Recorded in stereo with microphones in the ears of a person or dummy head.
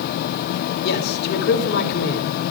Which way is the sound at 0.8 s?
55° left (ahead or behind).